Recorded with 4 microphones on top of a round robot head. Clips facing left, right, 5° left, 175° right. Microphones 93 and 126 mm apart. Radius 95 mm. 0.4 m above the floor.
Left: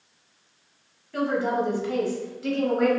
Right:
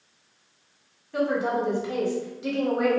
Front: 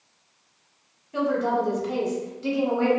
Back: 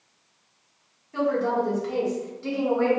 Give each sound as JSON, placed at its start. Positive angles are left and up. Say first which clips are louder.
{"t": 1.1, "sound": "a woman speaking", "louder": "even, even", "azimuth_deg": -45, "distance_m": 1.2}